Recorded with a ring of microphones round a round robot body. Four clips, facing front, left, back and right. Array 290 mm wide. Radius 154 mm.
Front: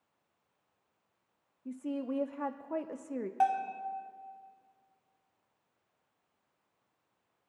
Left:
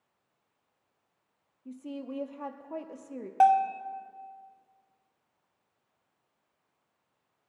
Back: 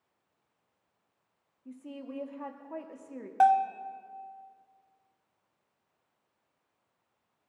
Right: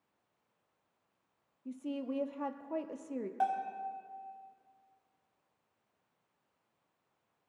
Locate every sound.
1.6 s a woman speaking: 20° right, 0.9 m
3.4 s a bell: 120° left, 0.7 m